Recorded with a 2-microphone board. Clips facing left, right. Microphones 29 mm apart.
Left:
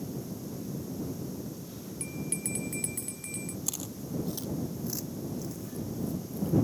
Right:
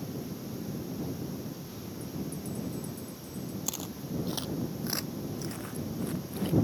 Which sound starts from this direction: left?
A bell, at 2.0 s.